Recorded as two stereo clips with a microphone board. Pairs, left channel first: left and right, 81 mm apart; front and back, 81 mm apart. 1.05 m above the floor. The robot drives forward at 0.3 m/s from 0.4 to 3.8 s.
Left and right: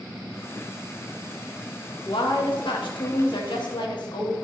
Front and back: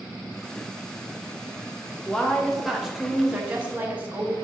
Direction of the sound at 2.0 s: 80° left.